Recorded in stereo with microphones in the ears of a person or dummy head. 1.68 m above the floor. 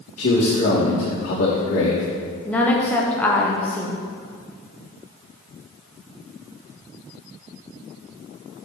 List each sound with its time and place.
0.2 s a man speaking: 50° left (ahead or behind), 2.5 m
2.5 s a woman speaking: 10° left (ahead or behind), 0.8 m